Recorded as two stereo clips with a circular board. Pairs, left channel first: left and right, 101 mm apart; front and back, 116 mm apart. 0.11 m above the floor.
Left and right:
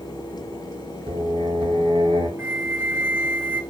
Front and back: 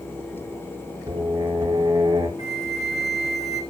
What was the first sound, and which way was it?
Singing, 115° right.